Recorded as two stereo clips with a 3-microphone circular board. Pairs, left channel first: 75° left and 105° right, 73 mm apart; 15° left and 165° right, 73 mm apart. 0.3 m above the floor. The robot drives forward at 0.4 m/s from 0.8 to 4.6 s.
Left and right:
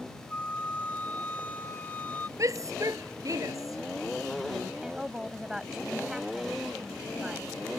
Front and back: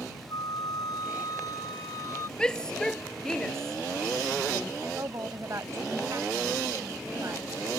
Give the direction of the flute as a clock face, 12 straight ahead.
12 o'clock.